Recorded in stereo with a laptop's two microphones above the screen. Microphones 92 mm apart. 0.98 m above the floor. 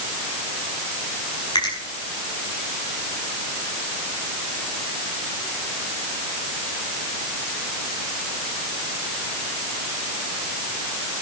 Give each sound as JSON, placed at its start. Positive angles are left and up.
{"t": 1.6, "sound": "a finger snap", "side_deg": 45, "distance_m": 7.0}